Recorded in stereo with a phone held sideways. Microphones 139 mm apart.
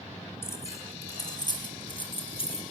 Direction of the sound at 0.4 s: 15° left (ahead or behind).